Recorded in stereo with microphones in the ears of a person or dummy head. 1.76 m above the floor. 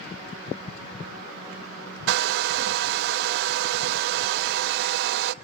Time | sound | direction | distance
2.1 | a hair dryer | 60° right (ahead or behind) | 0.5 m